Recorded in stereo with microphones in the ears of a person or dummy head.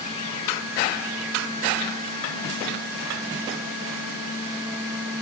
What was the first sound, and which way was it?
Only background noise.